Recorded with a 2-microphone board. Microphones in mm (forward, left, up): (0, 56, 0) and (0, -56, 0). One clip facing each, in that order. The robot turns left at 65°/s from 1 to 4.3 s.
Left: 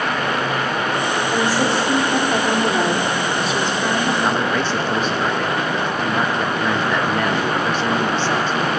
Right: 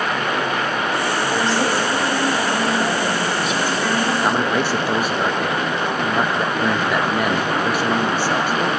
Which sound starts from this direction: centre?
A man speaking, at 4.2 s.